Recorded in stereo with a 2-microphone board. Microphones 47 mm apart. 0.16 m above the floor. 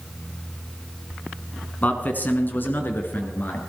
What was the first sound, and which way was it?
A man speaking, 35° left (ahead or behind).